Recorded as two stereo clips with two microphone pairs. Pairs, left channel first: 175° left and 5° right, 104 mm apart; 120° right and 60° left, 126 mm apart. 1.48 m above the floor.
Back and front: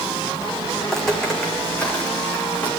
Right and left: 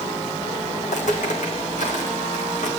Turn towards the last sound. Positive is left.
turn(degrees=-115)